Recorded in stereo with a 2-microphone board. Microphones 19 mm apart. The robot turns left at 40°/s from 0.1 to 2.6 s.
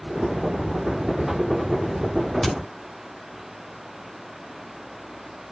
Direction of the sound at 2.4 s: 15° left (ahead or behind).